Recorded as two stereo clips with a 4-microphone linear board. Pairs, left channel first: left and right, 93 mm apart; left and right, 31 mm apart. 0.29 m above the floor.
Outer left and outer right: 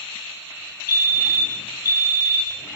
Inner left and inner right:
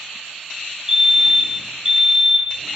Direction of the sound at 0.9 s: 25° right (ahead or behind).